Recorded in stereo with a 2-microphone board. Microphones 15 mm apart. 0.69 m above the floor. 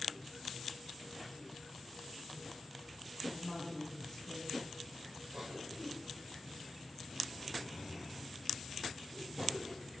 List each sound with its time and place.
3.2 s a woman speaking: 30° left (ahead or behind), 6 m
5.3 s a cough: 40° right (ahead or behind), 3.5 m